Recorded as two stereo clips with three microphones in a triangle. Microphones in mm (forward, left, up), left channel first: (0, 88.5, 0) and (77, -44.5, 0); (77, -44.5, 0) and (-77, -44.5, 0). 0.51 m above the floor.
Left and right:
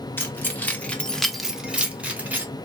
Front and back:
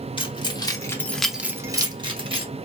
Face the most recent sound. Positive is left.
turn(degrees=-135)